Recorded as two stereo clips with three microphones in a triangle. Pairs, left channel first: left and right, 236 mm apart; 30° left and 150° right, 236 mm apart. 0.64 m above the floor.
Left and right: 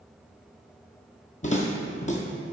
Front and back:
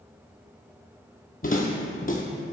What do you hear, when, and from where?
1.4 s footsteps: 55° left, 0.8 m